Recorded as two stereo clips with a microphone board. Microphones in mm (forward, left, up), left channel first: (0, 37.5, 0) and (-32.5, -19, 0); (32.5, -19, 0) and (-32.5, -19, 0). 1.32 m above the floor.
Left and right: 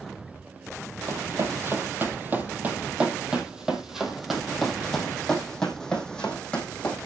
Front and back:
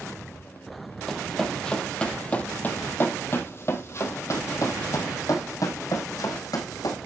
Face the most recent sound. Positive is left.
turn(degrees=-10)